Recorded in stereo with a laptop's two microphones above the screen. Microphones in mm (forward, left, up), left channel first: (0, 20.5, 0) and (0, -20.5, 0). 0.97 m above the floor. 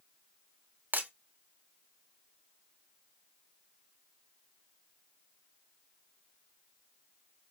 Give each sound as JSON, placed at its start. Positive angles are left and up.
{"t": 0.9, "sound": "breaking glass", "side_deg": -50, "distance_m": 0.9}